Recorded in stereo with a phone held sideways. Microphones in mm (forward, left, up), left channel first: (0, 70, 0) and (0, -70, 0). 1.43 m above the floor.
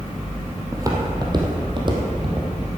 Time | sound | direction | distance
0.7 | footsteps | 25° right (ahead or behind) | 2 m